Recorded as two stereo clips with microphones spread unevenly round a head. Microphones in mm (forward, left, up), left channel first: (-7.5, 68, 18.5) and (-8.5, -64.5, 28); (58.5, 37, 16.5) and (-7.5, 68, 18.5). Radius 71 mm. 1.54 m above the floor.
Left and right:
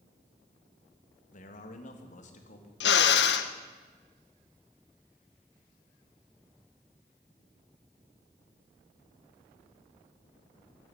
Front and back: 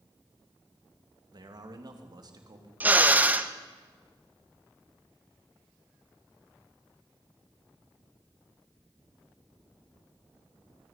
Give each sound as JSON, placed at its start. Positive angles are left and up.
{"t": 1.3, "sound": "a man speaking", "azimuth_deg": 125, "distance_m": 2.5}
{"t": 2.8, "sound": "a drill", "azimuth_deg": 85, "distance_m": 1.3}